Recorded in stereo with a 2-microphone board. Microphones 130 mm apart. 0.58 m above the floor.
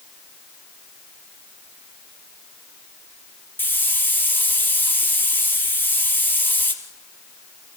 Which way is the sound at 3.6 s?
15° left (ahead or behind).